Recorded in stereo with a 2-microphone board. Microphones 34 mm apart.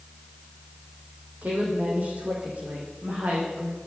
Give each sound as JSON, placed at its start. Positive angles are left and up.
{"t": 1.4, "sound": "a woman speaking", "side_deg": -50, "distance_m": 8.5}